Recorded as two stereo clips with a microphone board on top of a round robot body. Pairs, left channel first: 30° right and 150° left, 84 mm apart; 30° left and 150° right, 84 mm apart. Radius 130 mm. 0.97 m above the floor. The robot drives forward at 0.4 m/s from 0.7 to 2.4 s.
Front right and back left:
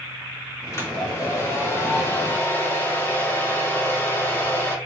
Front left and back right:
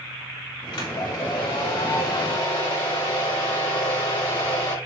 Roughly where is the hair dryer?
Ahead left.